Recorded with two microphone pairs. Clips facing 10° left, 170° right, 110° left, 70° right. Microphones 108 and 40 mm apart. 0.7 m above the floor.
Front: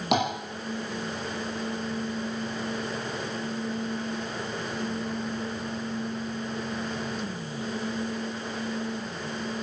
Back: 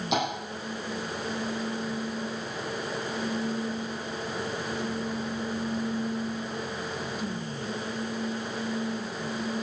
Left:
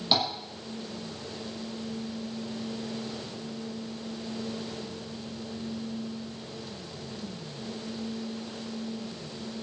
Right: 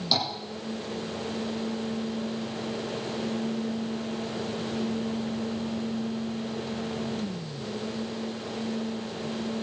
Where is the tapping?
35° left, 9 m.